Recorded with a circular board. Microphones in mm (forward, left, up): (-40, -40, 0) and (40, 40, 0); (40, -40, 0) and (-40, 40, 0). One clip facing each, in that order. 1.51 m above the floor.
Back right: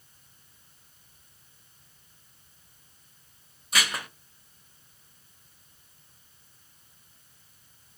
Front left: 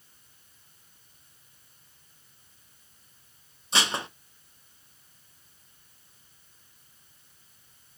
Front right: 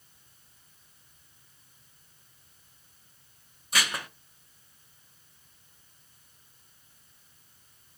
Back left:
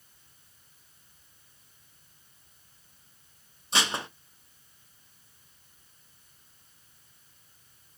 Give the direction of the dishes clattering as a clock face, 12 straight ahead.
9 o'clock.